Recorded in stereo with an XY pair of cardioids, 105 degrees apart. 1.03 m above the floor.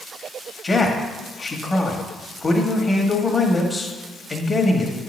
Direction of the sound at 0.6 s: 25° left.